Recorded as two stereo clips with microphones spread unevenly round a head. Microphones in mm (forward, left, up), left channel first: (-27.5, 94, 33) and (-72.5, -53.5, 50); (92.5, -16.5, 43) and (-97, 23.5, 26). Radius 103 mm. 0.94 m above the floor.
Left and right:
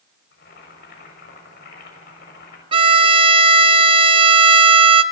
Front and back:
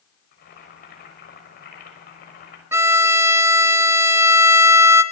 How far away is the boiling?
About 6 m.